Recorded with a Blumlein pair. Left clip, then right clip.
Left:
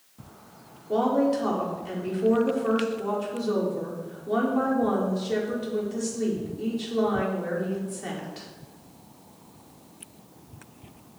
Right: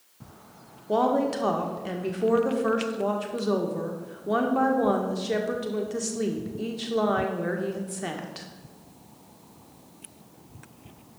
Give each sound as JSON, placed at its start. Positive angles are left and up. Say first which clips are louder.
{"t": 0.9, "sound": "a woman speaking", "louder": "even", "azimuth_deg": -25, "distance_m": 1.6}